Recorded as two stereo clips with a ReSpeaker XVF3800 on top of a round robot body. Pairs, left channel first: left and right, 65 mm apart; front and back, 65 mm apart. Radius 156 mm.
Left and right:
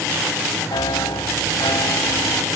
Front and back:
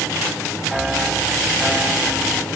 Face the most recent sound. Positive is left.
turn(degrees=95)